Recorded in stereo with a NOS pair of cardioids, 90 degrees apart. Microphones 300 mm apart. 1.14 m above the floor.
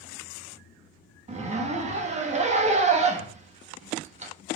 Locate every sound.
1.3 s a zipper: 25° right, 1.1 m